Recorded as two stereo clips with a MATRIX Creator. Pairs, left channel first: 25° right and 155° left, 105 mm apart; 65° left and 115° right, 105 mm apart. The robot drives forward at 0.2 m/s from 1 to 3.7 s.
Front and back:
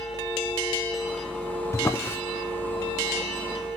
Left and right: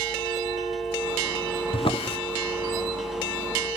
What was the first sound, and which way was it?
A drawer, 40° left.